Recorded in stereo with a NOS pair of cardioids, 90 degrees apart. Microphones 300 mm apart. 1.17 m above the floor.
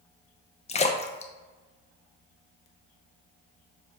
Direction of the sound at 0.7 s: 25° left.